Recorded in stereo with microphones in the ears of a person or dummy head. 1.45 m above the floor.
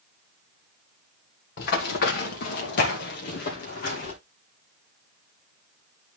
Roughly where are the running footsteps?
Left.